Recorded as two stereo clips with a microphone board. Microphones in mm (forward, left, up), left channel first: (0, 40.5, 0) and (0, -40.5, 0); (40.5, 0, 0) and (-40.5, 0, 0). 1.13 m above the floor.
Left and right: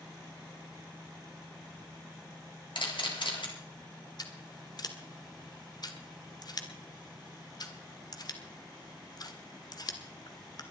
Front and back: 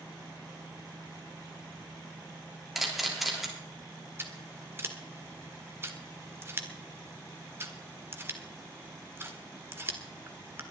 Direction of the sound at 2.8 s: 90° left.